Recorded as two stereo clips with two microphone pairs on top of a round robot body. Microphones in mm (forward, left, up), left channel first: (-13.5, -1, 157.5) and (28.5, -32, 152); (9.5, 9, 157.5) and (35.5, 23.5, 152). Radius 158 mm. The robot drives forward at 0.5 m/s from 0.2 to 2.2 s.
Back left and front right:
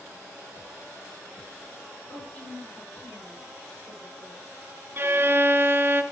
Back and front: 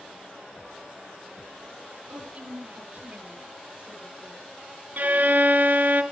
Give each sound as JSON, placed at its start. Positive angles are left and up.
{"t": 2.1, "sound": "a woman speaking", "azimuth_deg": 85, "distance_m": 8.5}
{"t": 5.0, "sound": "a violin", "azimuth_deg": 10, "distance_m": 1.7}